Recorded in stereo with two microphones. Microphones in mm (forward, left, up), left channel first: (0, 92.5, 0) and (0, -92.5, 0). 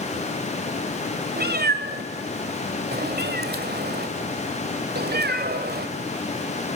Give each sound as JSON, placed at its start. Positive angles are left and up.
{"t": 1.4, "sound": "a cat meowing", "side_deg": -65, "distance_m": 1.6}